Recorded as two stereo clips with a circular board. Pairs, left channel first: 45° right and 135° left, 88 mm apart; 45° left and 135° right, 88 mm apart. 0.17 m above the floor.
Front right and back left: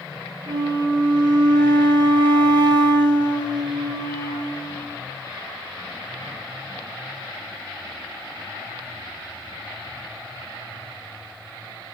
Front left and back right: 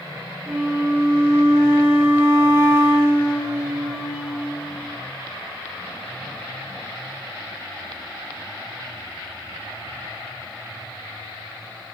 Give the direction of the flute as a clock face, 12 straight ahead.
7 o'clock.